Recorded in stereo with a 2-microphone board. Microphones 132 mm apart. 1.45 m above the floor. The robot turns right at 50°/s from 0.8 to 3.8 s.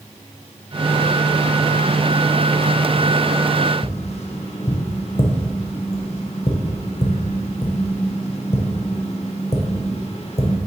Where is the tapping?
50° left (ahead or behind), 0.7 m.